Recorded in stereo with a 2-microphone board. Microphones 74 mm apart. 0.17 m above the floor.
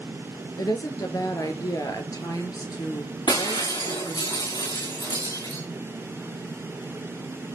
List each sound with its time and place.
0.6 s a woman speaking: 55° left (ahead or behind), 2.5 m
3.3 s breaking glass: 85° left, 7 m